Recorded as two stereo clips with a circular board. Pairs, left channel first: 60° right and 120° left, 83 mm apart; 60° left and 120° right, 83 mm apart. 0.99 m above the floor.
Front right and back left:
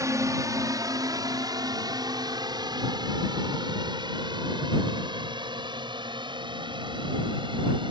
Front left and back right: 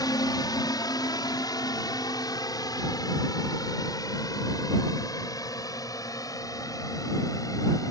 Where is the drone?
80° left; by 7.9 s 105° left.